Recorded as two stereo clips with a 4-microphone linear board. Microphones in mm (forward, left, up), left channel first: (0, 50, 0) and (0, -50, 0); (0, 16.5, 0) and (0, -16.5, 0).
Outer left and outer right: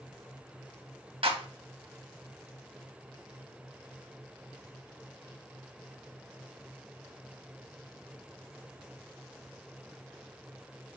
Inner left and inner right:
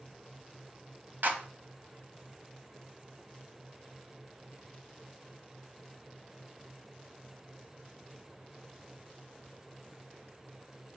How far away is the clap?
About 1.2 m.